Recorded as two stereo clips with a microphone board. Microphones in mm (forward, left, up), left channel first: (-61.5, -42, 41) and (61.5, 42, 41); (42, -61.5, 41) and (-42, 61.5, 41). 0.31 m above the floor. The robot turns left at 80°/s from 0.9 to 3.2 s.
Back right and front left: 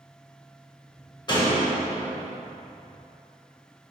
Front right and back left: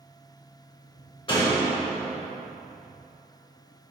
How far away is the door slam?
About 1.0 m.